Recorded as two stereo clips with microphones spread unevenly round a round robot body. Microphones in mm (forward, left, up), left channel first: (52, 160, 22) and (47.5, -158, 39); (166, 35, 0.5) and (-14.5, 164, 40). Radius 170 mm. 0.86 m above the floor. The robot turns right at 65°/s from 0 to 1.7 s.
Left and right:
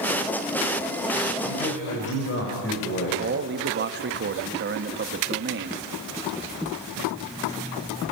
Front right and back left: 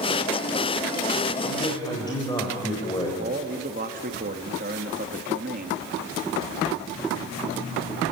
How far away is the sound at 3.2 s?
About 1.0 m.